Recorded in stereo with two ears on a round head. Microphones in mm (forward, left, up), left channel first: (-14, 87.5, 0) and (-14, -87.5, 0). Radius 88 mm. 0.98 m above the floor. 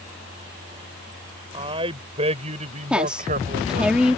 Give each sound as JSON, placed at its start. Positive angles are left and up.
{"t": 1.5, "sound": "a man speaking", "side_deg": -25}
{"t": 2.9, "sound": "a woman speaking", "side_deg": -5}